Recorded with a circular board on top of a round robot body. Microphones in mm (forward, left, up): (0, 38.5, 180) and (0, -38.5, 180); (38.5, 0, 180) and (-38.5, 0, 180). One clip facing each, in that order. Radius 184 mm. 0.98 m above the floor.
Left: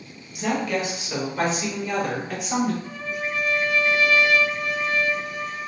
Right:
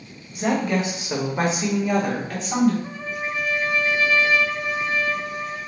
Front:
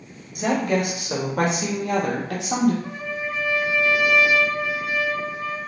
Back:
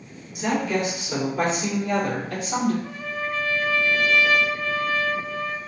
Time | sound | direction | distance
0.3 | a woman speaking | 40° right | 1.7 m
2.8 | a trumpet | 60° right | 0.8 m